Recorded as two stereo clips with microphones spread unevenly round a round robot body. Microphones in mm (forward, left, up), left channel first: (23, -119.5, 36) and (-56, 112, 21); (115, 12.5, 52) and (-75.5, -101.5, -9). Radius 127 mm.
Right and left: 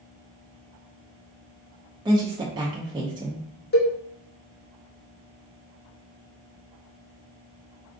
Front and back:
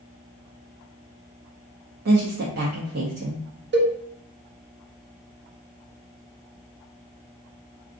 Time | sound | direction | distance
2.0 | a woman speaking | straight behind | 0.7 m
3.7 | a cowbell | 120° right | 0.9 m